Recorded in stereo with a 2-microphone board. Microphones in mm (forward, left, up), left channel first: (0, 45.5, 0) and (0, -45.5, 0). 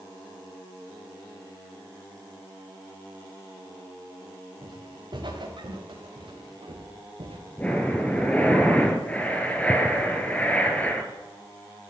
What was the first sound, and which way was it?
Footsteps, 50° right (ahead or behind).